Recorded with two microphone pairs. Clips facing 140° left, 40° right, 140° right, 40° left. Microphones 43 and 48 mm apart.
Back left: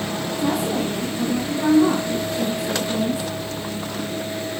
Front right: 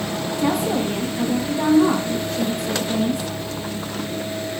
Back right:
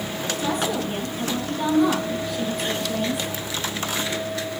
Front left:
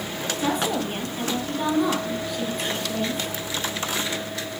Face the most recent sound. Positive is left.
turn(degrees=-65)